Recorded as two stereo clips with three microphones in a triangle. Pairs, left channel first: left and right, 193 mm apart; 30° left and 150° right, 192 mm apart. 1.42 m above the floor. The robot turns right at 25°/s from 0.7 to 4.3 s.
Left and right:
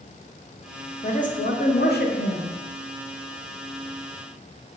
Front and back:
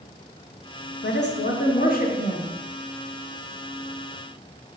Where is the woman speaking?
45° left, 0.6 m; by 2.5 s 80° left, 0.6 m.